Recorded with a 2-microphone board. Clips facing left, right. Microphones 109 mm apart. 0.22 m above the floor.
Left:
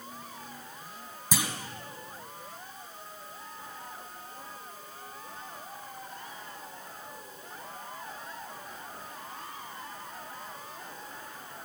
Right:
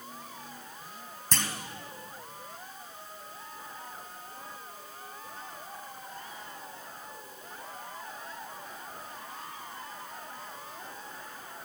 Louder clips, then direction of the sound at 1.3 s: Left 2 dB; 10° left (ahead or behind).